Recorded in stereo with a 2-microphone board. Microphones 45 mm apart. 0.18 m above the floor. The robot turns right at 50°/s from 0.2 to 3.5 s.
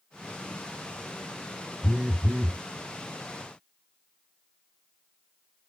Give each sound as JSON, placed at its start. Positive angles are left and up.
{"t": 1.8, "sound": "a phone buzzing", "azimuth_deg": -170}